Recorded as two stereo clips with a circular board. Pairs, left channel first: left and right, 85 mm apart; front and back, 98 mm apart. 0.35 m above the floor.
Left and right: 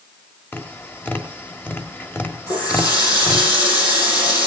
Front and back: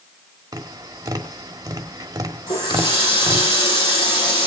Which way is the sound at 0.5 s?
145° left.